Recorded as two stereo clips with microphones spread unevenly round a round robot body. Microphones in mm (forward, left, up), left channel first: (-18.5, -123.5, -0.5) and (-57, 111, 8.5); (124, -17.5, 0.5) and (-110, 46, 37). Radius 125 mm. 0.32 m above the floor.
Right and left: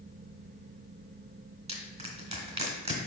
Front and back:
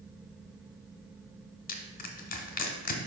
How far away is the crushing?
About 1.1 m.